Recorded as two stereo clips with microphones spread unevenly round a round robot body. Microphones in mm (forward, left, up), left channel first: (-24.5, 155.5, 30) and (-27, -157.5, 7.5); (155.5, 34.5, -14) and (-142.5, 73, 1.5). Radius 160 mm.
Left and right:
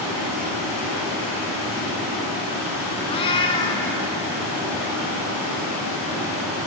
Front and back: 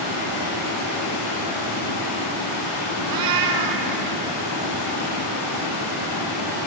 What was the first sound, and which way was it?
Running water, 5° right.